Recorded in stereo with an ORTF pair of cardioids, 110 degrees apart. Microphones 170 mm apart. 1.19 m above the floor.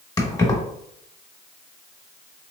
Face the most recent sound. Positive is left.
turn(degrees=20)